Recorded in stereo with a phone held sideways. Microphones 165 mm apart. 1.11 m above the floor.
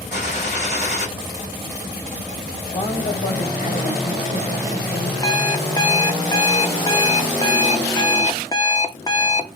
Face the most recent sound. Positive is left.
turn(degrees=25)  # may be behind; listen again after turning